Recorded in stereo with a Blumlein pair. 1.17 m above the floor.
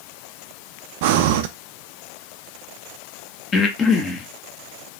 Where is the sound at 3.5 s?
20° left, 1.0 m.